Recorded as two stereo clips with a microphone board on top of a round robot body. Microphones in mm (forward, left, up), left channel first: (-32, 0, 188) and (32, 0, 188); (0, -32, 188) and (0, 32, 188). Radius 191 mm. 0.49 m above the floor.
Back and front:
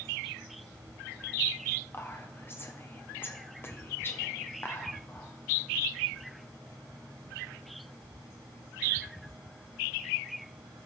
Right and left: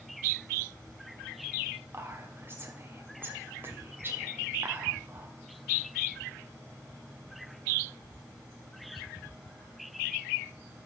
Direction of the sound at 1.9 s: 135° left.